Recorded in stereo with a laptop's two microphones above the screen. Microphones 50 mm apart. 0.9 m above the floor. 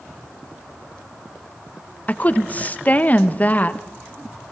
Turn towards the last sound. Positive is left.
turn(degrees=30)  # may be behind; listen again after turning